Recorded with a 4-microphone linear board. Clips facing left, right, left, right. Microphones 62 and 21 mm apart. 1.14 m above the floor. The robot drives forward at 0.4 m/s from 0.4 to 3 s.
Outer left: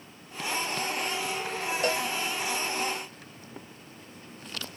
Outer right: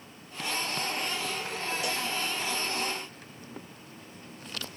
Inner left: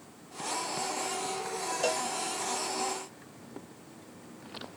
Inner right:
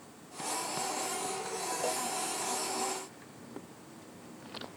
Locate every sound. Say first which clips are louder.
1.8 s a cowbell: outer left 8 dB, inner left 5 dB; 50° left (ahead or behind)